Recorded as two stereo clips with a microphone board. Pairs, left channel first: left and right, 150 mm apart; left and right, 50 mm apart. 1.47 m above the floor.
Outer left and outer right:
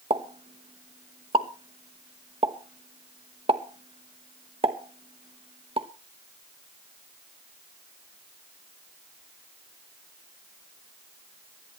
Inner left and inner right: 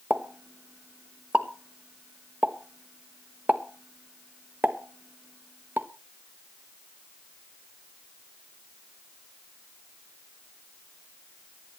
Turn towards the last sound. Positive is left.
turn(degrees=-40)  # may be behind; listen again after turning